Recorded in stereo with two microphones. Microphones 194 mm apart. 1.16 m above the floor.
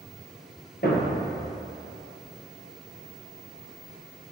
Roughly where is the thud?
Left.